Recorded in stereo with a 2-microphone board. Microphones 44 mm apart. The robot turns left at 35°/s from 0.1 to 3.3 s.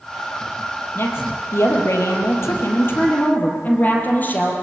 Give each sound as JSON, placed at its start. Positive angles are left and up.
{"t": 0.9, "sound": "a woman speaking", "azimuth_deg": 125, "distance_m": 5.0}